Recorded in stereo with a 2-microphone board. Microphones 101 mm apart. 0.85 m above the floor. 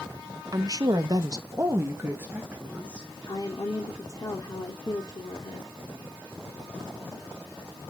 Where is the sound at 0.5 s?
40° right (ahead or behind), 0.9 m; by 3.1 s 15° right (ahead or behind), 1.9 m.